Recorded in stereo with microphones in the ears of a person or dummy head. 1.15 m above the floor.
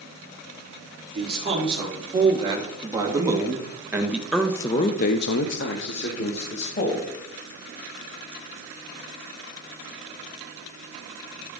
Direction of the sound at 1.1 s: 30° right (ahead or behind).